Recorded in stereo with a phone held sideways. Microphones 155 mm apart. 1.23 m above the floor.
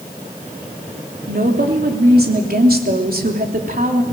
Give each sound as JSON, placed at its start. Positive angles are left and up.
{"t": 1.3, "sound": "a woman speaking", "side_deg": -80, "distance_m": 3.0}